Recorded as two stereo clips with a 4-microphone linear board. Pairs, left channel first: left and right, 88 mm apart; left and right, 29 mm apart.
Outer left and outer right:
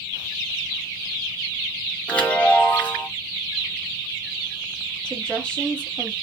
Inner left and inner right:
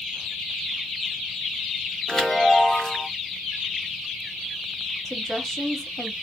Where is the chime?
15° left (ahead or behind), 1.2 m.